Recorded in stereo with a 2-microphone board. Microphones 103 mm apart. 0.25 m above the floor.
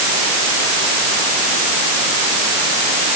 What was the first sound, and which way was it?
Only background noise.